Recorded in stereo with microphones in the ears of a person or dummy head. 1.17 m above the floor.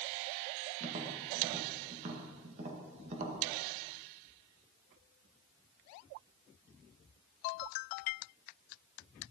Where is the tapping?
40° right (ahead or behind), 1.6 m.